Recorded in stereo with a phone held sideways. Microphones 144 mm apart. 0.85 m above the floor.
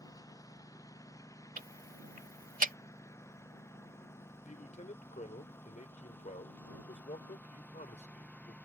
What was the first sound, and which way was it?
A lawn mower, 25° left (ahead or behind).